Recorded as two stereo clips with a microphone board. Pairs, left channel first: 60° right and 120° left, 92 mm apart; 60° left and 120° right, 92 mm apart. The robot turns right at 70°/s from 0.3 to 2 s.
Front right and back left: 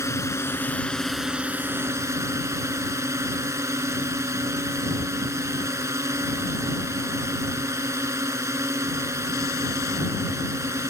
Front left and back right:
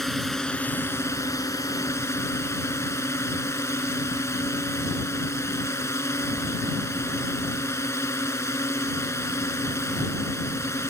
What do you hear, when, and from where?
0.0 s a drone: 25° right; by 10.9 s 90° left